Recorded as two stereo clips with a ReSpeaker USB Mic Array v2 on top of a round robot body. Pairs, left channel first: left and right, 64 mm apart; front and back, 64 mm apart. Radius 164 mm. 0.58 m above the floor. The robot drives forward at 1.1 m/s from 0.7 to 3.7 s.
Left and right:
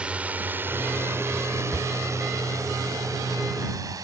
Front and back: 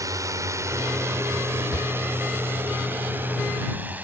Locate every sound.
0.0 s a drone: 160° right; by 4.0 s 115° right
1.7 s a shout: 30° left